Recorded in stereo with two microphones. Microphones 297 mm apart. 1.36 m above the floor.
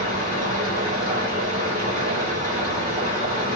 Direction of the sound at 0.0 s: 30° right (ahead or behind).